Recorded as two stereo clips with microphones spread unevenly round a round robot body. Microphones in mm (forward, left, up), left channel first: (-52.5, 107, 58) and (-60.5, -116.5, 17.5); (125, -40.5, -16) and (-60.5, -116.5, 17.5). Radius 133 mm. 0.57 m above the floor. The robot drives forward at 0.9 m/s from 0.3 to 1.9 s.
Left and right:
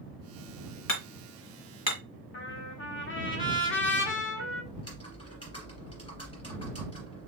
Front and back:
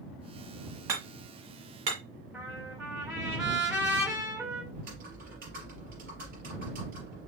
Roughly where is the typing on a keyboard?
Behind left.